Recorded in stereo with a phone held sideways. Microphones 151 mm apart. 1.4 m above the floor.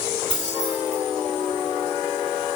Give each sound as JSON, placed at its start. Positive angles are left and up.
{"t": 0.3, "sound": "keys jangling", "side_deg": 30, "distance_m": 3.5}